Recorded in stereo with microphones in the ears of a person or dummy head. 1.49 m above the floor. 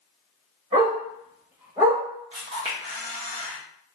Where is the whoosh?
I don't hear a whoosh.